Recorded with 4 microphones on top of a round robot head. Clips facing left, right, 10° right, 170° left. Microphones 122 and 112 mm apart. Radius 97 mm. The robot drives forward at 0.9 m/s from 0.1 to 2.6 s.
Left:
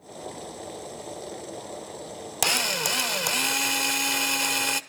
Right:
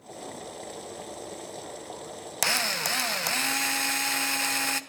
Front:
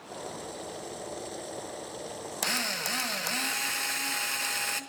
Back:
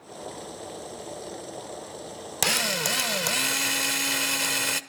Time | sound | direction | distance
2.4 | a drill | 160° left | 1.1 m